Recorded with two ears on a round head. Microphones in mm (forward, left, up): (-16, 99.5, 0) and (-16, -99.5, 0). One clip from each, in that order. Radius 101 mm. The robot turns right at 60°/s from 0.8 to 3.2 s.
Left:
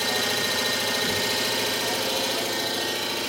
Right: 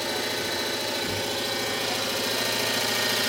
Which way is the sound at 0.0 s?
95° left.